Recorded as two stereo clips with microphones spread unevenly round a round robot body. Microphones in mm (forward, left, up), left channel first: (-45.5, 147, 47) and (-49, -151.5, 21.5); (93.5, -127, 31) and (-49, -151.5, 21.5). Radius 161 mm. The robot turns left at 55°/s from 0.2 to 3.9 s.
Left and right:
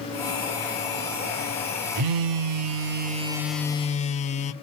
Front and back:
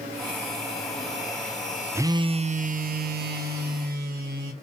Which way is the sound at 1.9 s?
95° right.